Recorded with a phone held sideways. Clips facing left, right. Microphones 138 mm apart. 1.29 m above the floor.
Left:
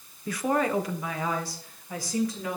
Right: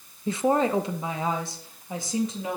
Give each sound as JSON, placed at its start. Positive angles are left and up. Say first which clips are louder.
{"t": 0.3, "sound": "a woman speaking", "louder": "right 3 dB", "side_deg": -25, "distance_m": 0.8}